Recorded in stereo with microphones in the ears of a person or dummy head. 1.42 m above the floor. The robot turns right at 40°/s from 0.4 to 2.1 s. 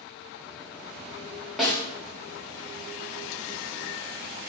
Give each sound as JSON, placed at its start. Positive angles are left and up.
{"t": 1.6, "sound": "a snare drum", "side_deg": 0, "distance_m": 3.0}